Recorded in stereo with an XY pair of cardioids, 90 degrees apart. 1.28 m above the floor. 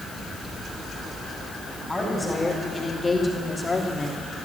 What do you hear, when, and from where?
1.9 s a woman speaking: 15° left, 4.5 m; by 4.5 s 25° left, 2.5 m